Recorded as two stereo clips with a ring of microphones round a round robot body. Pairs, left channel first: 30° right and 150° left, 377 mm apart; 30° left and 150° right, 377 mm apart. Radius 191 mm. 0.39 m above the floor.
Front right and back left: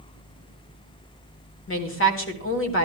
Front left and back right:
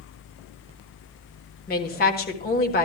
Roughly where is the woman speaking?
Ahead.